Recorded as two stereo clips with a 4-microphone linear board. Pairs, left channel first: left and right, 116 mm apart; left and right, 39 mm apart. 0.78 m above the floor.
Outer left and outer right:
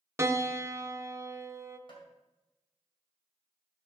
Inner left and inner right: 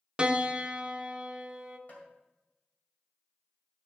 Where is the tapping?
45° left (ahead or behind), 2 m.